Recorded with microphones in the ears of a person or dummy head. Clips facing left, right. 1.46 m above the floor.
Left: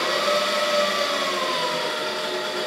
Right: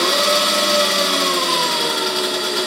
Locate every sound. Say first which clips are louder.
0.0 s an engine running: right 4 dB; 55° right (ahead or behind), 0.7 m